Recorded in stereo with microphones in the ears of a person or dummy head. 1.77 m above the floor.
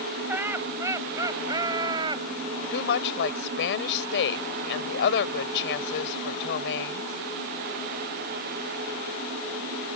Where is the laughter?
10° right (ahead or behind); by 2.2 s 25° right (ahead or behind).